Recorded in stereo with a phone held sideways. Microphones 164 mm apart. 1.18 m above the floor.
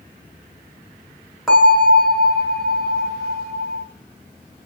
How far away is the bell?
About 1.4 m.